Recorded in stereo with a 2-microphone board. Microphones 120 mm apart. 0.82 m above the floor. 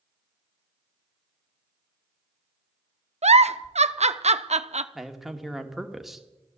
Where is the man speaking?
Centre (ahead or behind), 1.5 m.